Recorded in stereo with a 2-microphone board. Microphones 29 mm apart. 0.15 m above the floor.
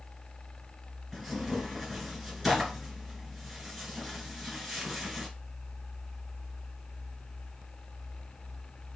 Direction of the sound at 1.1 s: Centre (ahead or behind).